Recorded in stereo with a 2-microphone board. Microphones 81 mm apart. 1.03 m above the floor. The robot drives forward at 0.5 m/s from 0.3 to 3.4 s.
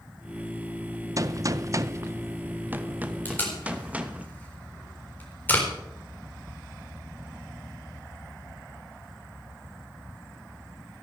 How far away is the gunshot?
About 0.5 m.